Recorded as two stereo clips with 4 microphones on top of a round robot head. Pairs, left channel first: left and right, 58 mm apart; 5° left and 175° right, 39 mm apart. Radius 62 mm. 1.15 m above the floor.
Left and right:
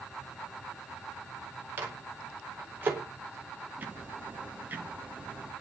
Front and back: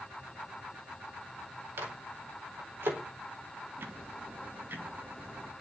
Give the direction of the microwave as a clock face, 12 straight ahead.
5 o'clock.